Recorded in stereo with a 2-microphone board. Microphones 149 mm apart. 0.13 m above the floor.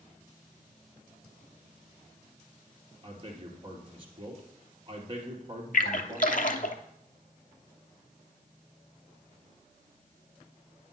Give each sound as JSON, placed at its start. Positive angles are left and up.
{"t": 3.0, "sound": "a man speaking", "side_deg": -35, "distance_m": 2.0}
{"t": 5.7, "sound": "a splash", "side_deg": 70, "distance_m": 0.7}